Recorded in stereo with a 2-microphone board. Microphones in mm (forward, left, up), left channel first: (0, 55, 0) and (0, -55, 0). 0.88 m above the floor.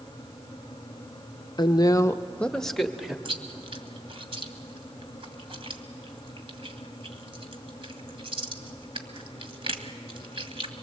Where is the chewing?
60° right (ahead or behind), 1.5 m.